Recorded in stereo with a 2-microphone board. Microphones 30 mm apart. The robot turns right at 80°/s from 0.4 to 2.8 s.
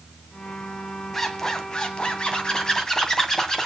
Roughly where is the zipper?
Centre.